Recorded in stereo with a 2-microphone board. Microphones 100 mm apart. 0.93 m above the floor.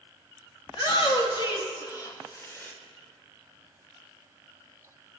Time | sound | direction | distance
0.7 | a shout | 60° left (ahead or behind) | 2 m